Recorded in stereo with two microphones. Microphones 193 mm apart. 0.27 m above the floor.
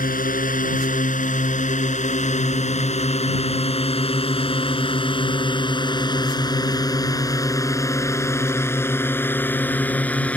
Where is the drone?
45° left (ahead or behind); by 10.4 s 5° left (ahead or behind).